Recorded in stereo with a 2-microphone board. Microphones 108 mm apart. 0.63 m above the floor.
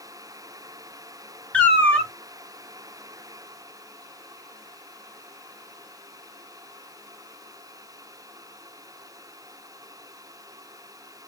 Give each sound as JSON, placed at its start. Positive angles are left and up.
{"t": 1.5, "sound": "a cat meowing", "side_deg": 15, "distance_m": 0.8}